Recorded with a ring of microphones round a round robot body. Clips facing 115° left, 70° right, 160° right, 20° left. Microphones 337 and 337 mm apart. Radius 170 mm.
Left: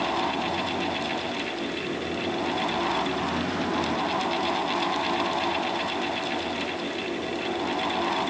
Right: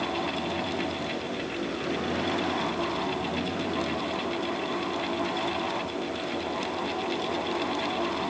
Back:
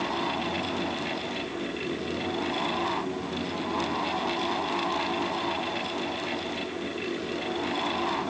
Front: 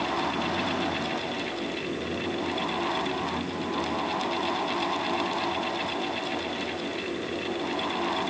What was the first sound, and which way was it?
Only background noise.